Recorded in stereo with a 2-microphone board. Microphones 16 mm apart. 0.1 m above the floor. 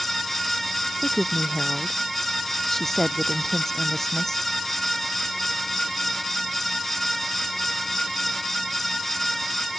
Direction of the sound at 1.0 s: 20° left (ahead or behind).